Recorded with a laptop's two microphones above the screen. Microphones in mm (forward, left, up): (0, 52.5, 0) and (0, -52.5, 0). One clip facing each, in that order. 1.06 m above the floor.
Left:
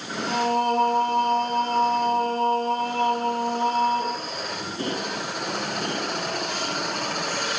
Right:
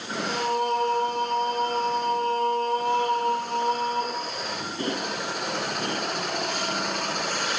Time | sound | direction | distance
0.3 | singing | 40° left (ahead or behind) | 0.9 m